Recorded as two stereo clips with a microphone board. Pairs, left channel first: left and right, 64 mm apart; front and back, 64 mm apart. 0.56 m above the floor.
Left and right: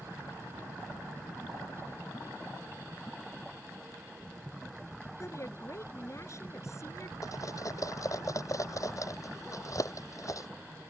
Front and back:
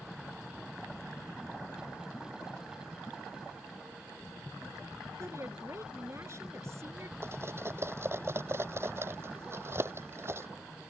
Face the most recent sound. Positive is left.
turn(degrees=125)